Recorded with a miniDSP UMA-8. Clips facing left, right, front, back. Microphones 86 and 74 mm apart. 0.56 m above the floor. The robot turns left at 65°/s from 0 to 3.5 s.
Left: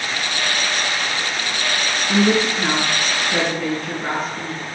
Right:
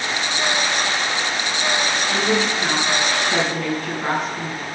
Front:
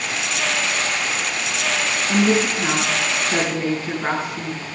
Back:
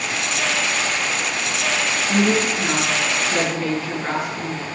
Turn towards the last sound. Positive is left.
turn(degrees=-50)